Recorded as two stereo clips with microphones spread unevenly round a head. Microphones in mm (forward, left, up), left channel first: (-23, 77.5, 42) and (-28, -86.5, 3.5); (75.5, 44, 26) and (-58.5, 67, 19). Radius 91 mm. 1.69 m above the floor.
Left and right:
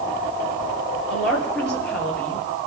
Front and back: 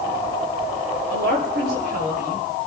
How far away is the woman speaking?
About 7.5 m.